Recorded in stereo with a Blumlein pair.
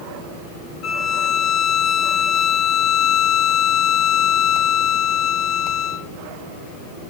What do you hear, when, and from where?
0.8 s a violin: 35° left, 0.6 m